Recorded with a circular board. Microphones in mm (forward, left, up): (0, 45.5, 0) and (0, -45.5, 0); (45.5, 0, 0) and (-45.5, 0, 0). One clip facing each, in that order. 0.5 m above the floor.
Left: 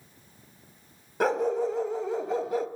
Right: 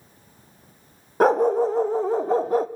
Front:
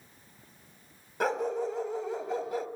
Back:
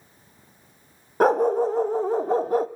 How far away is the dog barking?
About 0.7 m.